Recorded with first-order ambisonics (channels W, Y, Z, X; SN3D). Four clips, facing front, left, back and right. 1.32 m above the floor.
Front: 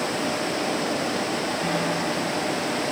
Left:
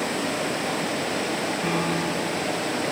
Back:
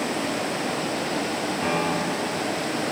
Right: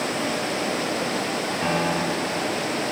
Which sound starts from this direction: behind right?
A piano, at 1.6 s.